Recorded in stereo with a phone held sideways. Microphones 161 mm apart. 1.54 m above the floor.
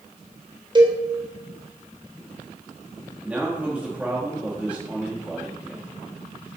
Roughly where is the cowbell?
Right.